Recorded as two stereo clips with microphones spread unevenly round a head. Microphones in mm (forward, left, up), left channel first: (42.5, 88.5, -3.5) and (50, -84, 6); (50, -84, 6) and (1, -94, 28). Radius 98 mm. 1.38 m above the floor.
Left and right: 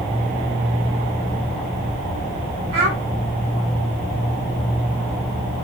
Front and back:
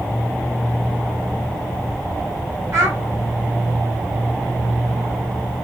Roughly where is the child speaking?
Behind right.